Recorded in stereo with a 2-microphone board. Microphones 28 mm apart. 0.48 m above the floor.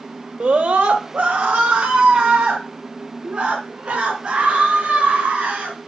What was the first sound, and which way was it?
A scream, 45° right (ahead or behind).